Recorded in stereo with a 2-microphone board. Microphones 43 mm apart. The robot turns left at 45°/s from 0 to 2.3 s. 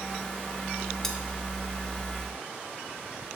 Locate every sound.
1.0 s cutlery clinking: 10° left (ahead or behind), 0.9 m; by 1.2 s 5° left (ahead or behind), 0.9 m